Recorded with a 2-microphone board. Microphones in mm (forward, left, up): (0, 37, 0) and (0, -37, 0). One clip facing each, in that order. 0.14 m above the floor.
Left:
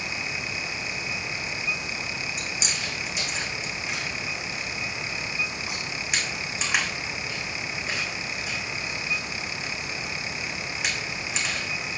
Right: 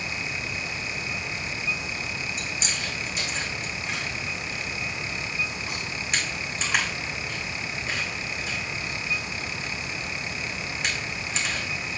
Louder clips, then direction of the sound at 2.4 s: Even; 10° left (ahead or behind).